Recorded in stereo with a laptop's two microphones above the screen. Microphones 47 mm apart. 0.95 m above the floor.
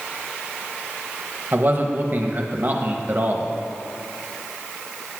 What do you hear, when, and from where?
1.5 s a man speaking: 45° right (ahead or behind), 0.7 m